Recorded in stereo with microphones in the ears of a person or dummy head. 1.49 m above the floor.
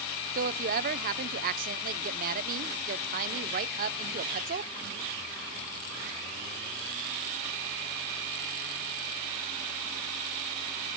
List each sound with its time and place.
0.3 s a woman speaking: 50° right (ahead or behind), 0.8 m